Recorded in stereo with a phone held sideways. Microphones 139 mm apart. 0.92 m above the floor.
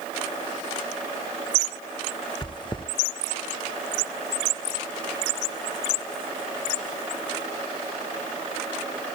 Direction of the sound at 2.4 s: 35° left (ahead or behind).